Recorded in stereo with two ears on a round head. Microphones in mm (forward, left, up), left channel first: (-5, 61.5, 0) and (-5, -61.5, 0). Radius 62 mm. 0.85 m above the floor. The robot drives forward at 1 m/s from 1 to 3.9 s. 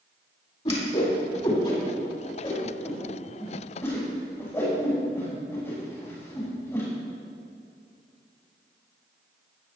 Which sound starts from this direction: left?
A whoosh, at 0.7 s.